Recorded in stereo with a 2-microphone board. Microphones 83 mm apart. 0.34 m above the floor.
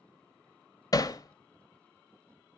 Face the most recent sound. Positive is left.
turn(degrees=45)  # may be behind; listen again after turning